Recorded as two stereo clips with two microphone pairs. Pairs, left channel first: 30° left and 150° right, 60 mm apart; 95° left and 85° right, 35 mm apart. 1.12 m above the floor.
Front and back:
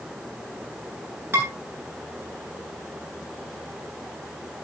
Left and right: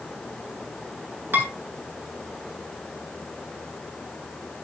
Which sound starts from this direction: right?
Dishes clattering, at 1.3 s.